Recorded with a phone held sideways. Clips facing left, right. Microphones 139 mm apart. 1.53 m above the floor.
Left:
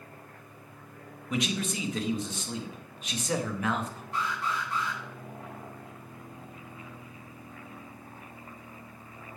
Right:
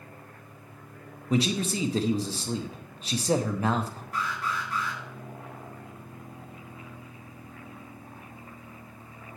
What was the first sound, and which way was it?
A man speaking, 35° right (ahead or behind).